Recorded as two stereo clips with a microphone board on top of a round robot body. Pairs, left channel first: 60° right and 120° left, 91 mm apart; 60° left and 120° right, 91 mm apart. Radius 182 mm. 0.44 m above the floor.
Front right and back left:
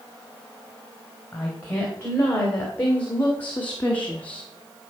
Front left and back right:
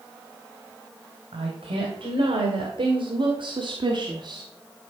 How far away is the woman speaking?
About 3 m.